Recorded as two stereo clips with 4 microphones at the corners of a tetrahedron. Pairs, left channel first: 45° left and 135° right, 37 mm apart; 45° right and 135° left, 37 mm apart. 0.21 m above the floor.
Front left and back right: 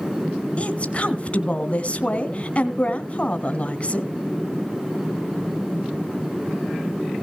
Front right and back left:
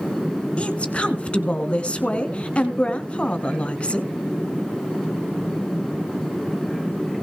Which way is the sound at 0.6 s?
Straight ahead.